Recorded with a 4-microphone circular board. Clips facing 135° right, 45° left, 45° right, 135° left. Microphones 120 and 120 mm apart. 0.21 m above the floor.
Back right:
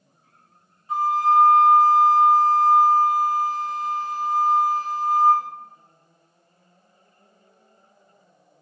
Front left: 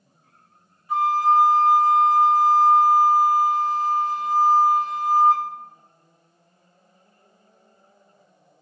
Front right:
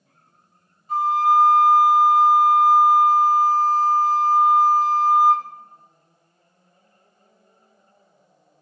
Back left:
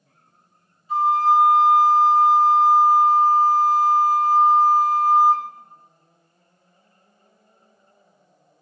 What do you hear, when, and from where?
0.9 s a flute: 70° right, 1.3 m